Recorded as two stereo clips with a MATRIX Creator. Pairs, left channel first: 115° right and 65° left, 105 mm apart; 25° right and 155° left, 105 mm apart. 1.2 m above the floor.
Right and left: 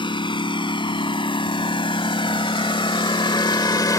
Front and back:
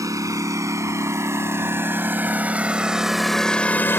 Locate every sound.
0.0 s a lawn mower: 145° right; by 4.0 s 80° right